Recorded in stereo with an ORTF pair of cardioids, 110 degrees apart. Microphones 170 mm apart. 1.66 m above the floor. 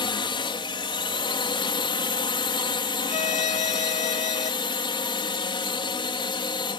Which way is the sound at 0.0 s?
30° left.